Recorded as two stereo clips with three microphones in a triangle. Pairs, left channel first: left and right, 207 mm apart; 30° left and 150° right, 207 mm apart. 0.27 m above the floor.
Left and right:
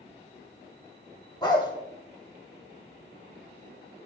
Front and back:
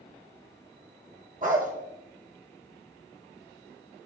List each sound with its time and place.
1.4 s a dog barking: 160° left, 2 m